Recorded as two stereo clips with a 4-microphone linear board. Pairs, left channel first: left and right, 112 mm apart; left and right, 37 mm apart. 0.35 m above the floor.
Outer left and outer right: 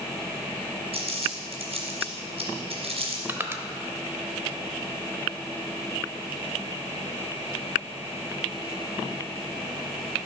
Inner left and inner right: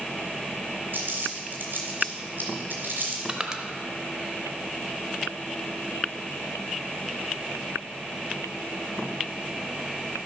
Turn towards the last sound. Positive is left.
turn(degrees=-20)  # may be behind; listen again after turning